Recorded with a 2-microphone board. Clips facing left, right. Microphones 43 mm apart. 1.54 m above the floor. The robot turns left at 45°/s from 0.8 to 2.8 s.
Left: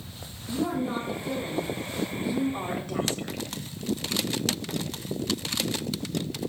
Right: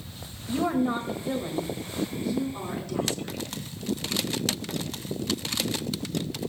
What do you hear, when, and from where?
0.5 s a woman speaking: 135° right, 2.0 m; by 3.4 s 135° left, 2.0 m